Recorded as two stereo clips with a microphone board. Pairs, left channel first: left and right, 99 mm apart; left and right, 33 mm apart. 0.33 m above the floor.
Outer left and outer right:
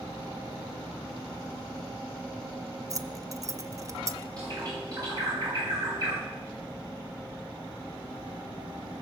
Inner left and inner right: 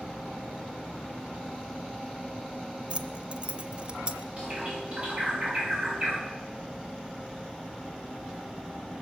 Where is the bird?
40° right (ahead or behind), 7 m.